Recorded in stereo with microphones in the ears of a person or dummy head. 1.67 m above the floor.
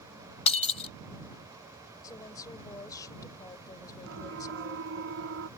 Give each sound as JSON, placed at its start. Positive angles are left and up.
{"t": 0.5, "sound": "breaking glass", "side_deg": 35}
{"t": 2.0, "sound": "a woman speaking", "side_deg": 20}
{"t": 4.1, "sound": "a siren", "side_deg": -65}